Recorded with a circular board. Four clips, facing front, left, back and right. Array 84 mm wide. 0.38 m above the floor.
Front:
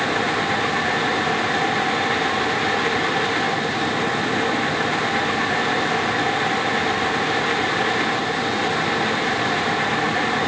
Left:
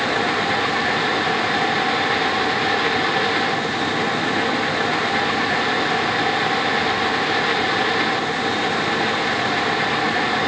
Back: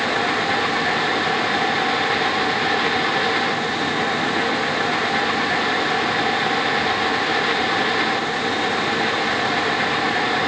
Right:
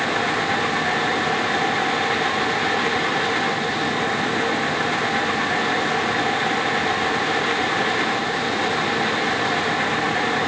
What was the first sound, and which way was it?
Only background noise.